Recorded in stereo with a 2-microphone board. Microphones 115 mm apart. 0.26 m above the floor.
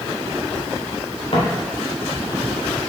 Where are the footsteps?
55° left (ahead or behind), 3 m.